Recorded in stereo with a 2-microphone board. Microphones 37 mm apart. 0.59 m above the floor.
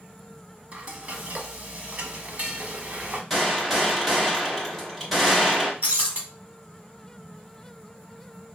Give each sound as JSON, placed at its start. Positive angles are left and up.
{"t": 0.7, "sound": "frying", "side_deg": -40, "distance_m": 0.8}
{"t": 3.3, "sound": "a gunshot", "side_deg": 5, "distance_m": 1.3}
{"t": 5.8, "sound": "breaking glass", "side_deg": -50, "distance_m": 1.5}